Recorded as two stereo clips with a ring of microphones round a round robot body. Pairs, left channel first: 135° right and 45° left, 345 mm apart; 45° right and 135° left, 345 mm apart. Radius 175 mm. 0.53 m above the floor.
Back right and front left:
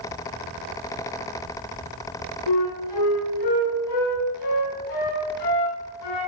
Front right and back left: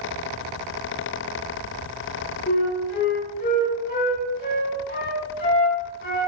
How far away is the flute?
About 7.5 m.